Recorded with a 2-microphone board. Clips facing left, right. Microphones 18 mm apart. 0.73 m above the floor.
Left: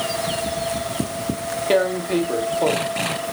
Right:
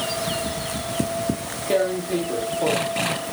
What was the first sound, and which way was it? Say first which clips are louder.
Tearing paper: left 2 dB; 30° left (ahead or behind).